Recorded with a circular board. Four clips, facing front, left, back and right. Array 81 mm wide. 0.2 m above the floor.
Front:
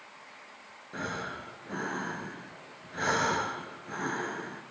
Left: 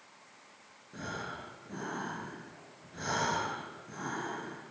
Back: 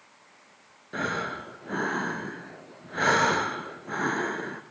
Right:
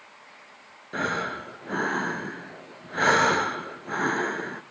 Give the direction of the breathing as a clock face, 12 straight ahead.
4 o'clock.